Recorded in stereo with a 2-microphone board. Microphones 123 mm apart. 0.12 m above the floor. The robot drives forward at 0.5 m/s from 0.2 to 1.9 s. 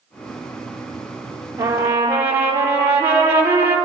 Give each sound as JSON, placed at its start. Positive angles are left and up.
{"t": 1.6, "sound": "a trumpet", "side_deg": -20, "distance_m": 3.0}